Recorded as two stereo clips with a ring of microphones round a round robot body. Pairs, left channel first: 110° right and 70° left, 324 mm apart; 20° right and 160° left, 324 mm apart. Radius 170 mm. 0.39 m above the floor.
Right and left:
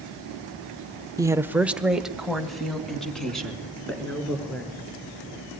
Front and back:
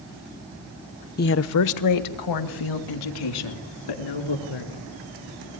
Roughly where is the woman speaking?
Ahead.